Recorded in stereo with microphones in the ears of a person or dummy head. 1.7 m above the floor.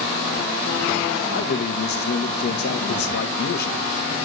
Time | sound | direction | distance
1.3 | a man speaking | 65° left (ahead or behind) | 1.5 m